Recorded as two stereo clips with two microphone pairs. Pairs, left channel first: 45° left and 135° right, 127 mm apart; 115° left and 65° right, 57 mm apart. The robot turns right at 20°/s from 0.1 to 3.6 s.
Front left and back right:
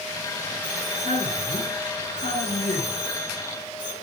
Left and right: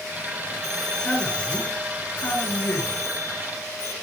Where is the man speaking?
30° left, 7 m; by 3.9 s 90° left, 7 m.